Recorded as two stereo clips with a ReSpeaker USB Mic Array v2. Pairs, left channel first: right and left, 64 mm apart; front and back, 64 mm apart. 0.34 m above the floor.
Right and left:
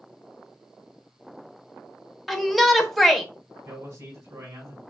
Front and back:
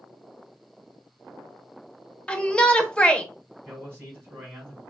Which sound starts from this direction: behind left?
A man speaking, at 3.6 s.